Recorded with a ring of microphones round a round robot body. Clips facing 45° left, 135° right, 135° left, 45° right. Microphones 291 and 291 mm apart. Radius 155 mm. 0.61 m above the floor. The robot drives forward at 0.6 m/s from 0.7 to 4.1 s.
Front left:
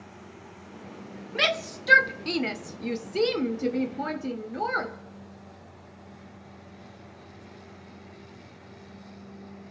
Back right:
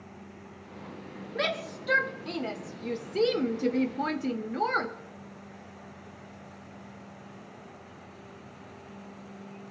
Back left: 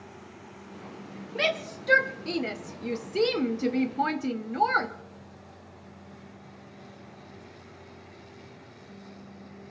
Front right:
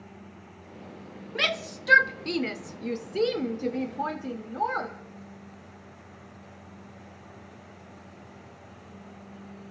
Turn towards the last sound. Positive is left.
turn(degrees=155)